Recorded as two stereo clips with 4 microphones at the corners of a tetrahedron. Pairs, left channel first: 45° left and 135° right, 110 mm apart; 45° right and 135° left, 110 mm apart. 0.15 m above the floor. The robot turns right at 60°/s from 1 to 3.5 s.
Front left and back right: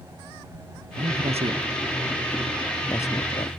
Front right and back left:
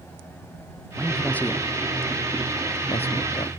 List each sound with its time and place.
1.0 s a man speaking: 145° right; by 3.5 s 5° left